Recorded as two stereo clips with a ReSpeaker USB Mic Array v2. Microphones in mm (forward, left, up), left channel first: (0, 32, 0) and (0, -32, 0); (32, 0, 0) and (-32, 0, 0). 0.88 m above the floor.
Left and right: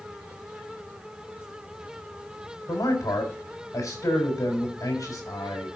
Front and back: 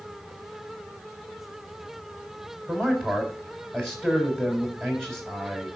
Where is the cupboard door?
No cupboard door in this recording.